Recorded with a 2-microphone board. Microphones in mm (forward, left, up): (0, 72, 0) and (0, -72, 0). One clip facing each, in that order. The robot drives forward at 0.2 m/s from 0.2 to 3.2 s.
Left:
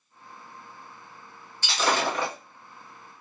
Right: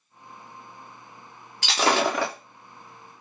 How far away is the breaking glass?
About 2 m.